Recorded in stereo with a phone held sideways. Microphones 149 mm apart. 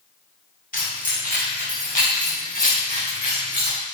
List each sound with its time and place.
0.7 s keys jangling: 70° left (ahead or behind), 3.5 m; by 3.8 s 55° left (ahead or behind), 5.5 m